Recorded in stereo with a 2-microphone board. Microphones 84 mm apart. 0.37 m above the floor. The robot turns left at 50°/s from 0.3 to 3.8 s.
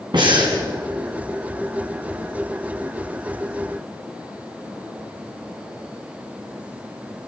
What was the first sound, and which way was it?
Breathing, 65° right (ahead or behind).